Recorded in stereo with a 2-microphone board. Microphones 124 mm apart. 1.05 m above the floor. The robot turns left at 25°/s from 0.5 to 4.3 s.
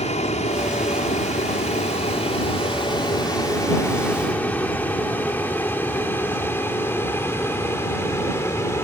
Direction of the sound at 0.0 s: 65° left (ahead or behind).